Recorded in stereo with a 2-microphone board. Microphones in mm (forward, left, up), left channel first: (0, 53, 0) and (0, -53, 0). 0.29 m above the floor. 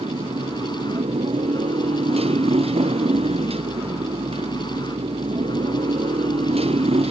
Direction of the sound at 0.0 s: 85° right.